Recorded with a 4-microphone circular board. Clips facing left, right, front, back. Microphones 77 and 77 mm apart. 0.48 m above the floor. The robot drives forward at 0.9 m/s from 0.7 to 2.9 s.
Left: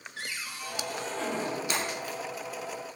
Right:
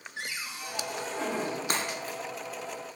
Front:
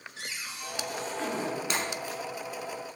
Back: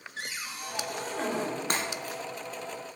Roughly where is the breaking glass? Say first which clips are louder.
Even, even; behind right.